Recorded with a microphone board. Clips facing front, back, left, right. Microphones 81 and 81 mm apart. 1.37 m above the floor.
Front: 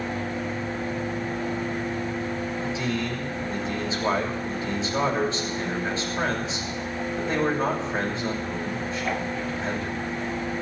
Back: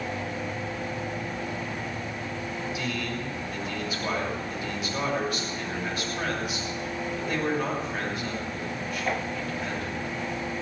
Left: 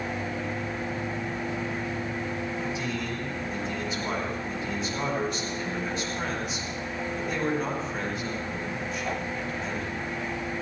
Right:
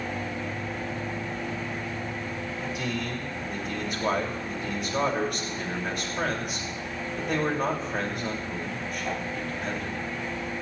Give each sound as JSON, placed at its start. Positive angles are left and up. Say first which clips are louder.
{"t": 2.6, "sound": "a man speaking", "louder": "front 3 dB, even", "azimuth_deg": -60, "distance_m": 7.0}